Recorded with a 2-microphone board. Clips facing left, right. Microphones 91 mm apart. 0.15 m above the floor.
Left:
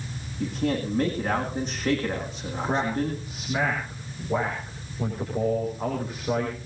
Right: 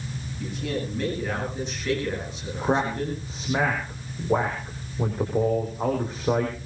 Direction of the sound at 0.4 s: 40° left (ahead or behind).